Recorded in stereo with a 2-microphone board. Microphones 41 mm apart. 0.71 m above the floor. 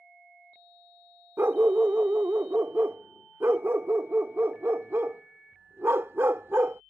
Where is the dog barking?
85° right.